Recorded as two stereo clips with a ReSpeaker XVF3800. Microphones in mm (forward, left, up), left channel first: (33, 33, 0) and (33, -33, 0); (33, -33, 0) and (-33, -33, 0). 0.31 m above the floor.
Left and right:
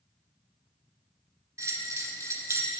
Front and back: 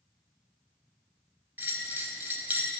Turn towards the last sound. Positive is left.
turn(degrees=-125)